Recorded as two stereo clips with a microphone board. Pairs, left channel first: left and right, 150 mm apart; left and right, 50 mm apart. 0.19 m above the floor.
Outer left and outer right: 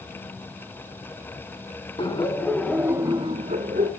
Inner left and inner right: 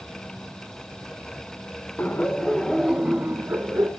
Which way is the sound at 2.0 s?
35° left (ahead or behind).